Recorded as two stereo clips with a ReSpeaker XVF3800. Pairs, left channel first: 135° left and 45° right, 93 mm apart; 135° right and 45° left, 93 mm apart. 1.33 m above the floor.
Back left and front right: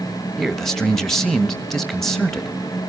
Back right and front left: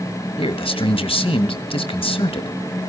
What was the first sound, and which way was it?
A man speaking, 140° right.